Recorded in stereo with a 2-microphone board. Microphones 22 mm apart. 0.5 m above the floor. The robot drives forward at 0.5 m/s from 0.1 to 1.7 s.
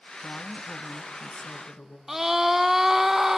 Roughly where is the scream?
Right.